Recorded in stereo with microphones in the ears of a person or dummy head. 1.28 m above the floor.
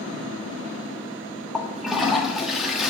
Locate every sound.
1.5 s a toilet flushing: centre (ahead or behind), 1.4 m